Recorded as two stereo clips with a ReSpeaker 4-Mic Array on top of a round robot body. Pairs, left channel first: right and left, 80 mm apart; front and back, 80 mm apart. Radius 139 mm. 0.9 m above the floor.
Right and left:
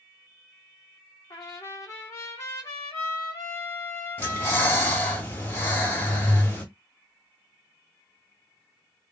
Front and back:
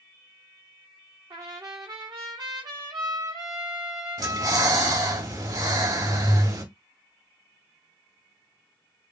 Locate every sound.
1.3 s a trumpet: 145° right, 0.6 m
4.2 s breathing: 150° right, 1.8 m